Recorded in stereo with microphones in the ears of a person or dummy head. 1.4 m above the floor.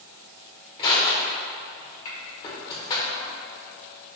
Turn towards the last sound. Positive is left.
turn(degrees=30)  # may be behind; listen again after turning